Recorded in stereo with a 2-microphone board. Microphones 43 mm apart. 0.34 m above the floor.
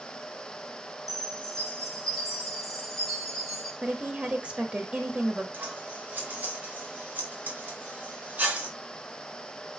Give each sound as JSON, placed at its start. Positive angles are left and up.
{"t": 1.1, "sound": "a chime", "side_deg": -5, "distance_m": 3.5}
{"t": 3.8, "sound": "a woman speaking", "side_deg": -30, "distance_m": 1.3}
{"t": 5.5, "sound": "scissors", "side_deg": -45, "distance_m": 3.5}